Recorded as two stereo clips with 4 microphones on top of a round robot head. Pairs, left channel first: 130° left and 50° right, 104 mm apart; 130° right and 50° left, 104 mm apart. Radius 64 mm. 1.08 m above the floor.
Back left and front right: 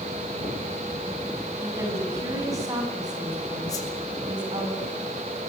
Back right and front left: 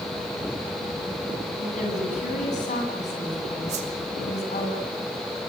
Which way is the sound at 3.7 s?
70° left.